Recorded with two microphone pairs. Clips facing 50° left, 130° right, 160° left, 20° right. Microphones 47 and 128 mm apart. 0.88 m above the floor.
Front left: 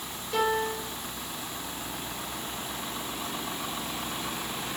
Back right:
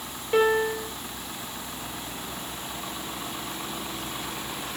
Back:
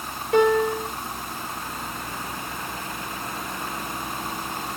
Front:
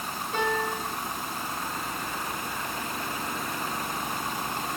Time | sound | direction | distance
0.3 | a piano | straight behind | 3.5 m